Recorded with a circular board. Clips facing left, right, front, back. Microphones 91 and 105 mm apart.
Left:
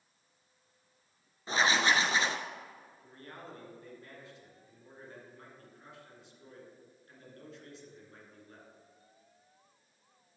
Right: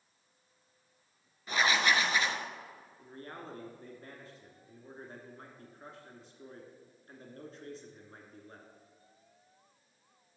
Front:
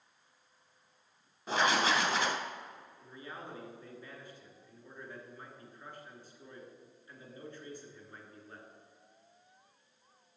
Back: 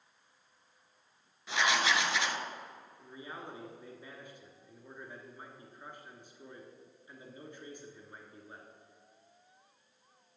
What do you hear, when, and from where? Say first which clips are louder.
1.5 s writing: left 1 dB, front 2 dB; 35° left, 0.8 m
3.0 s a man speaking: right 4 dB, back 1 dB; 115° right, 2 m